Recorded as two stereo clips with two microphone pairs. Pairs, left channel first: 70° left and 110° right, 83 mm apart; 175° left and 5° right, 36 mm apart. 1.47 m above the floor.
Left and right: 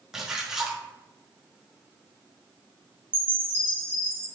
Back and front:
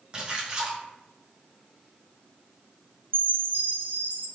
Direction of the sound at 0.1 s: 40° right.